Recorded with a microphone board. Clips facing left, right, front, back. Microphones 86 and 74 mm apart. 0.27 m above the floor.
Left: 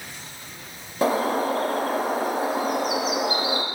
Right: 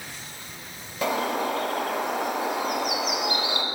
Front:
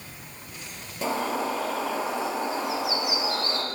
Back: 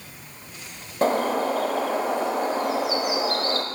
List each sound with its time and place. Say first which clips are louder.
1.0 s a bird: left 4 dB, back 6 dB; 145° left, 0.9 m